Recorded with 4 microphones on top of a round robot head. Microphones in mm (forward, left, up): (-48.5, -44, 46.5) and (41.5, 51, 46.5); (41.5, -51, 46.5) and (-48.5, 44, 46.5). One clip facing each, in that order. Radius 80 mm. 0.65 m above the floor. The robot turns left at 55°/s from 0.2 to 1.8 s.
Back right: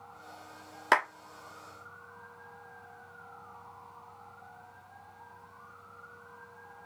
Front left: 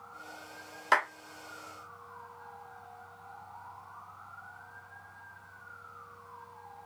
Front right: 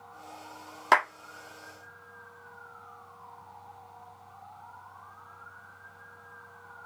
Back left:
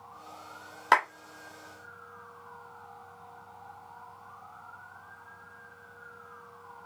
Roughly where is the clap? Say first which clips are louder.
Back right 1 dB, front right 1 dB; behind right.